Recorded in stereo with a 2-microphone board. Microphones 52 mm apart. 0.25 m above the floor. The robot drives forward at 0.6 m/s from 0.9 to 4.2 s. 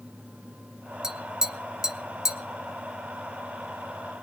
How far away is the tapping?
About 0.7 m.